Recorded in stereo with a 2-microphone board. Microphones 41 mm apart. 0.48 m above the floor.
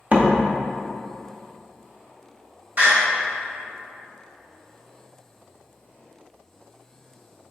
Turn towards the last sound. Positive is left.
turn(degrees=-45)  # may be behind; listen again after turning